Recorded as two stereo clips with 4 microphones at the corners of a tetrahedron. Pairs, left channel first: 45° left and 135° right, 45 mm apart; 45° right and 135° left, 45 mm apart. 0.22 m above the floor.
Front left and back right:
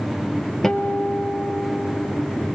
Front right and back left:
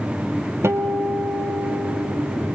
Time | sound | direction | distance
0.6 | a guitar | 130° left | 1.4 m